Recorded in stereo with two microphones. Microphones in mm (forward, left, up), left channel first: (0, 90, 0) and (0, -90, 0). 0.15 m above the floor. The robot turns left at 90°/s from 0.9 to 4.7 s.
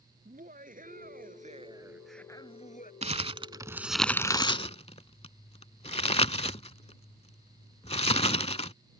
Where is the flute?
I don't hear a flute.